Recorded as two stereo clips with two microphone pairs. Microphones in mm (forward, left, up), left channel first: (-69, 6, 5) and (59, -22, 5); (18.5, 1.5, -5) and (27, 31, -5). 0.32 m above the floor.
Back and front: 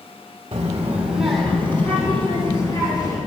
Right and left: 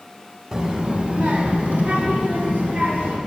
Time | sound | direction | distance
0.5 | a child speaking | 25° left | 0.8 m